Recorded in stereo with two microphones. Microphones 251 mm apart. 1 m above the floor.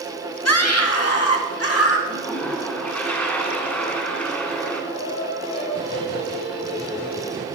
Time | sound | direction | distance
0.5 | a scream | 70° left (ahead or behind) | 2.5 m
2.1 | a toilet flushing | 5° left (ahead or behind) | 3 m
4.9 | singing | 85° left | 3.5 m